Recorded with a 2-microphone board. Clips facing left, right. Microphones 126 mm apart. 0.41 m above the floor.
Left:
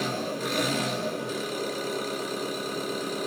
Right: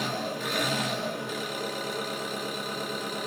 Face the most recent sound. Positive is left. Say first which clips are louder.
# left 2 dB
turn(degrees=40)  # may be behind; listen again after turning